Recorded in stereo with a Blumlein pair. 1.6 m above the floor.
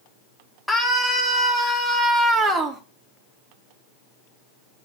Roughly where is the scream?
Ahead.